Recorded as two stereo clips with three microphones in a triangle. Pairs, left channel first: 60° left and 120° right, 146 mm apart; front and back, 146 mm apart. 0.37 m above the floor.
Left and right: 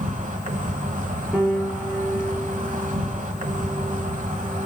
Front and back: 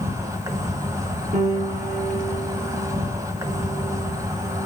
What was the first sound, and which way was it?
An insect, 115° right.